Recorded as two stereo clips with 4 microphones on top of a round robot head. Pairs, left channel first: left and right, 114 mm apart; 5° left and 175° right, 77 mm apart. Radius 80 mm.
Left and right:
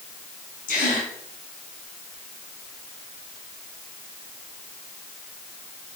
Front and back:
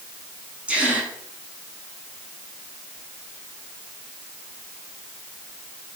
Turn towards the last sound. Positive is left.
turn(degrees=110)